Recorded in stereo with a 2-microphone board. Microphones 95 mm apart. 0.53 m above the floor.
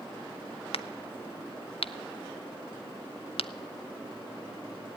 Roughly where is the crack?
Left.